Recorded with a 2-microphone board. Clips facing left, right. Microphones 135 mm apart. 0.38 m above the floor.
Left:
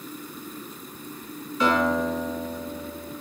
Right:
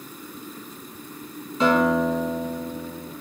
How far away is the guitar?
About 1.4 m.